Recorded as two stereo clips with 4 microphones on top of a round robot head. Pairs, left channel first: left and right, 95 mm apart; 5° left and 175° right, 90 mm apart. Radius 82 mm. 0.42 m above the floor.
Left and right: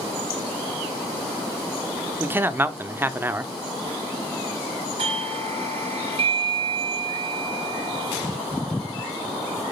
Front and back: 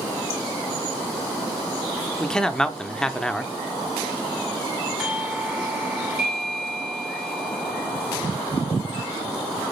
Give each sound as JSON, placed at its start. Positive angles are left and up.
{"t": 2.2, "sound": "a man speaking", "azimuth_deg": -70, "distance_m": 0.8}
{"t": 5.0, "sound": "a doorbell", "azimuth_deg": -90, "distance_m": 3.5}